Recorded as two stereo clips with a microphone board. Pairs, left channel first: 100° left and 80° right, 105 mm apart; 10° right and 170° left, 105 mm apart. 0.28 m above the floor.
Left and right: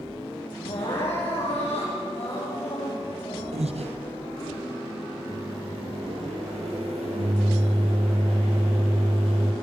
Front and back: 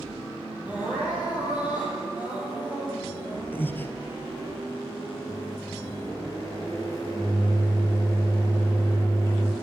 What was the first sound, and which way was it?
Crying, 95° left.